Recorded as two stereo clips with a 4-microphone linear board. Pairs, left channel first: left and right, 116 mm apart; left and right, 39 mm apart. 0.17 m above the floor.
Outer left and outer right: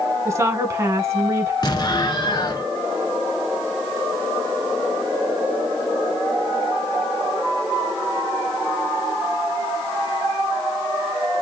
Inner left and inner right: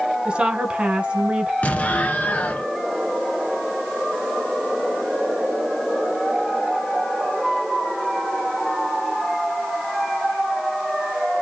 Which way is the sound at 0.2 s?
25° right (ahead or behind).